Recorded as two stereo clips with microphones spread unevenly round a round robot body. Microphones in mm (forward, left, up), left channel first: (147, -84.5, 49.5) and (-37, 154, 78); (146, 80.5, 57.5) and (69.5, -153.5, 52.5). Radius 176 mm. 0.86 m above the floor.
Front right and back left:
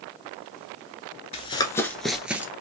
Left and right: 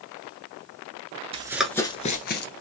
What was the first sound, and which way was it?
Running footsteps, 105° right.